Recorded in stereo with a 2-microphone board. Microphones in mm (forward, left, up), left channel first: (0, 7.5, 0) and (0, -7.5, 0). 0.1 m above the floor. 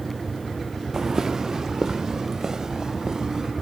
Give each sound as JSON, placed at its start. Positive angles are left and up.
{"t": 0.9, "sound": "footsteps", "side_deg": -40, "distance_m": 0.5}